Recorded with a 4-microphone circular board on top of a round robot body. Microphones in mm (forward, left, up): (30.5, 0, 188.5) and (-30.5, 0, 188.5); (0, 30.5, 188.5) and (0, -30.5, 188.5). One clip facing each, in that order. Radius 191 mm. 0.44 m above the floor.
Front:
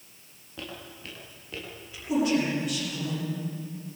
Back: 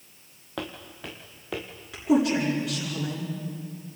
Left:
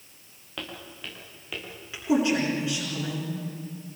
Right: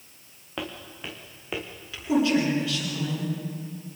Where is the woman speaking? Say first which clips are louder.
Back 3 dB, right 1 dB; 160° left, 8 m.